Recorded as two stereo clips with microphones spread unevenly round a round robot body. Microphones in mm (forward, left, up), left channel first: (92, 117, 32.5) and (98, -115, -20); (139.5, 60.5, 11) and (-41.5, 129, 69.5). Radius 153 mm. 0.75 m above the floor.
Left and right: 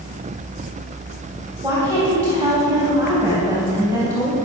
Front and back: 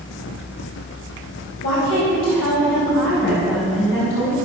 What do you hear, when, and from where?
1.6 s a woman speaking: 10° right, 3.5 m